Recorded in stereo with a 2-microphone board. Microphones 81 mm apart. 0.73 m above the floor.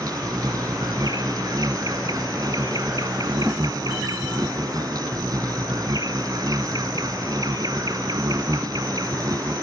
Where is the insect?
50° right (ahead or behind).